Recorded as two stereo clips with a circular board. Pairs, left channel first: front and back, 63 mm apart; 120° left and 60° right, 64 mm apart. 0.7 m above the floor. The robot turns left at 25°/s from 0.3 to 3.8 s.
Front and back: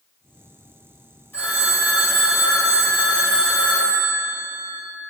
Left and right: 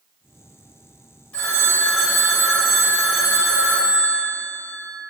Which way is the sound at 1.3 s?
50° left.